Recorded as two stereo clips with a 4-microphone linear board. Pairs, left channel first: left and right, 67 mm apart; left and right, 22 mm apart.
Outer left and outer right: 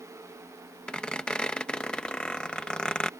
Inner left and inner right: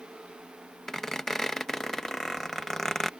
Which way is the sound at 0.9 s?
15° left (ahead or behind).